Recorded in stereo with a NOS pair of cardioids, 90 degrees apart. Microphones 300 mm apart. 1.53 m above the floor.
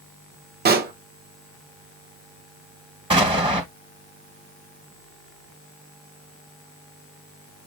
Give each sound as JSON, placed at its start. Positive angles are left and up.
{"t": 0.7, "sound": "a pop", "azimuth_deg": -30, "distance_m": 1.0}
{"t": 3.1, "sound": "an explosion", "azimuth_deg": -15, "distance_m": 1.9}